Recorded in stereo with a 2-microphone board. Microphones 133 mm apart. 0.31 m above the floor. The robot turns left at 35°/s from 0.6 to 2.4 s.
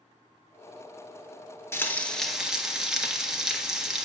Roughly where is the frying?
Centre.